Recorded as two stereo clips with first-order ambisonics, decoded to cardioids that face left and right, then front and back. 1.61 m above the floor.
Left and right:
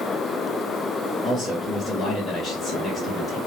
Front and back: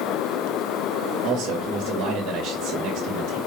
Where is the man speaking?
170° left, 1.3 m.